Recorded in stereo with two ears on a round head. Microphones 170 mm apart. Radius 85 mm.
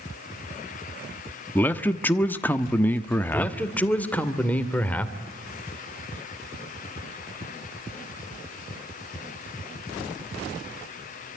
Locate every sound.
1.6 s a man speaking: 10° left (ahead or behind), 1.1 m
3.3 s a man speaking: 10° left (ahead or behind), 2 m